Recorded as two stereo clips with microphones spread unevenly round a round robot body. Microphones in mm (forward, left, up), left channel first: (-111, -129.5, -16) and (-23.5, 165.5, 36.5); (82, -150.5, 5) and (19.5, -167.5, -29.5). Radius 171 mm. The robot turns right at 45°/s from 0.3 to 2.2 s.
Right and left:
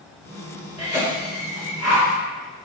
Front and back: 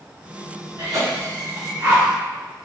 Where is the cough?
170° right, 1.6 m; by 2.0 s 110° right, 1.6 m.